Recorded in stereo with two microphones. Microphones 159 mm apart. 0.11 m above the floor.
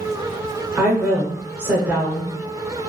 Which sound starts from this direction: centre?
A woman speaking, at 0.8 s.